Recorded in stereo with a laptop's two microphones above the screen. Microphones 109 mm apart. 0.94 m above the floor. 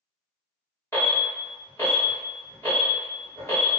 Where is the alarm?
25° left (ahead or behind), 1.3 m.